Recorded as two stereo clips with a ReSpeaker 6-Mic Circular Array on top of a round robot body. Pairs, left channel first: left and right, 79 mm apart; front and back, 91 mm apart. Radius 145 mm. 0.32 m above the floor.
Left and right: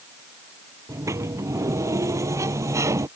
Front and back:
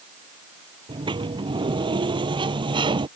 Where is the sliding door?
145° right.